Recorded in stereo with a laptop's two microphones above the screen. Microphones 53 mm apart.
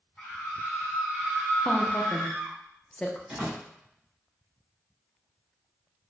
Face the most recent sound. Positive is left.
turn(degrees=-25)  # may be behind; listen again after turning